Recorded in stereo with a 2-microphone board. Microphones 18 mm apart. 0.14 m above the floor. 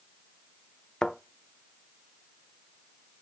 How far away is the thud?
About 0.5 m.